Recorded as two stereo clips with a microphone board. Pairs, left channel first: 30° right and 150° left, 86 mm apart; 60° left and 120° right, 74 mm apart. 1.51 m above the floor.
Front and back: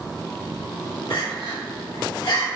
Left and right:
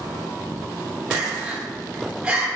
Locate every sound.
1.1 s crying: 45° right, 1.0 m